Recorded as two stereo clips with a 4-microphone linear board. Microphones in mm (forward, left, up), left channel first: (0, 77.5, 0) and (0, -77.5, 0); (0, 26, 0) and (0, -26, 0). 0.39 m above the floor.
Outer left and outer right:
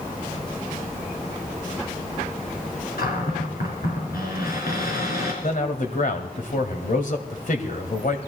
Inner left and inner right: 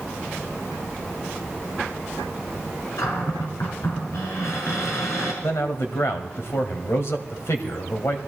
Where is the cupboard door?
80° left, 5 m.